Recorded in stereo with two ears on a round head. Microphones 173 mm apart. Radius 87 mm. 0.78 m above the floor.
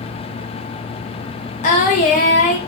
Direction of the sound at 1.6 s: 40° left (ahead or behind).